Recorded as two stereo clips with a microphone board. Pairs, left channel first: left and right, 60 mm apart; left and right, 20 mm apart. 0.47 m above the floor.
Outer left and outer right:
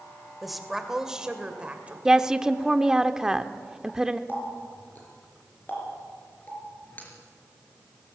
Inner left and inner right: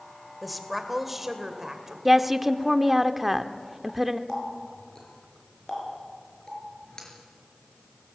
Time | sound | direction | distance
0.4 | a woman speaking | centre (ahead or behind) | 2 m
2.0 | a woman speaking | 10° right (ahead or behind) | 0.8 m
4.3 | a running tap | 30° left (ahead or behind) | 4.5 m